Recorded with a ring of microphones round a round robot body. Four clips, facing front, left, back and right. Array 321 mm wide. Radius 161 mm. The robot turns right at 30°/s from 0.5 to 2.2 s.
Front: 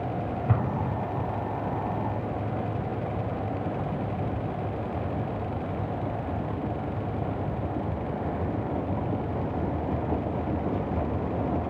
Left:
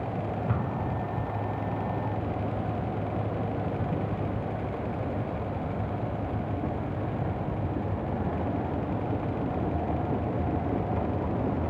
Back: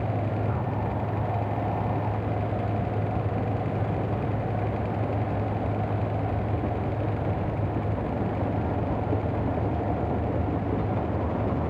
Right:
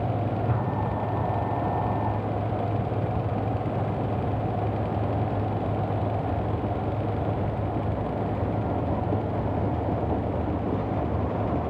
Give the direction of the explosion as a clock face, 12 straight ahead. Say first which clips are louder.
Right 3 dB, front 1 dB; 12 o'clock.